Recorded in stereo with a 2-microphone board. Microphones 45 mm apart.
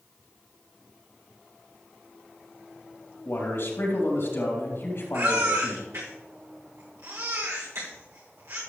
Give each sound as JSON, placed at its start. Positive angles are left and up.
{"t": 3.2, "sound": "a man speaking", "side_deg": 65, "distance_m": 3.5}
{"t": 5.1, "sound": "a baby crying", "side_deg": -75, "distance_m": 3.0}